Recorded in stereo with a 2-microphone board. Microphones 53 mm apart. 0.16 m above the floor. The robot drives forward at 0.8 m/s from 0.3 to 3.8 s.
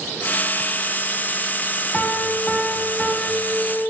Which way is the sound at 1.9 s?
10° left (ahead or behind).